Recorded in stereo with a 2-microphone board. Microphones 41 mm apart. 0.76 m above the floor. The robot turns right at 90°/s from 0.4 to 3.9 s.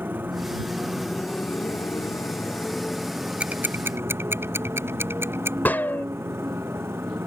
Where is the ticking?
30° right (ahead or behind); by 5.5 s 75° right (ahead or behind).